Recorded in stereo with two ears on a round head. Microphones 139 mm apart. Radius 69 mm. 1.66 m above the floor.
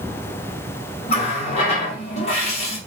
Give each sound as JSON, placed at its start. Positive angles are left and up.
{"t": 1.1, "sound": "a running tap", "side_deg": 40, "distance_m": 0.9}